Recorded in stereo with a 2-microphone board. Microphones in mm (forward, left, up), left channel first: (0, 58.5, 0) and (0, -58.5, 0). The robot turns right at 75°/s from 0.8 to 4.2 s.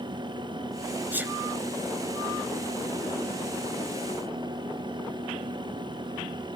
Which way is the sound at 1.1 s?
15° right (ahead or behind).